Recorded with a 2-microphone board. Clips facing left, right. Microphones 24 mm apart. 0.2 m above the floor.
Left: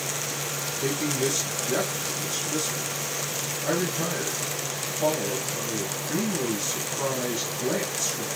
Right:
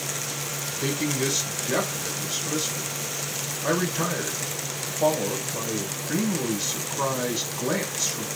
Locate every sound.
0.8 s a man speaking: 30° right (ahead or behind), 1.7 m